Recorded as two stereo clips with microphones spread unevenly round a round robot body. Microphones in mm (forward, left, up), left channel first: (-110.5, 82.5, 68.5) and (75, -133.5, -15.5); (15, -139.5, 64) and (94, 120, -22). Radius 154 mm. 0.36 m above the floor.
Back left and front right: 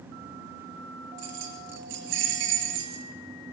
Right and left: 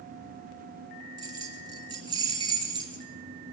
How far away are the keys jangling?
About 4 m.